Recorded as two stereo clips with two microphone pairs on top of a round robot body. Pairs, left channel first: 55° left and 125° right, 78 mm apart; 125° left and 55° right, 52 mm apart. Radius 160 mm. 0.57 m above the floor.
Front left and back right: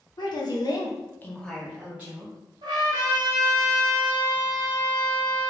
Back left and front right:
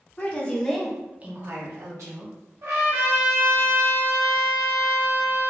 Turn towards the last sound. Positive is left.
turn(degrees=-95)